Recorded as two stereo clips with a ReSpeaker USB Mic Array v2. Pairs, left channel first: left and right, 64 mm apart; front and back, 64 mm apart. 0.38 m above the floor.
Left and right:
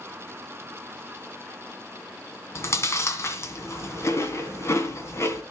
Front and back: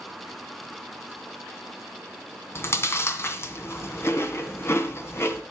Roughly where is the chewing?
Ahead left.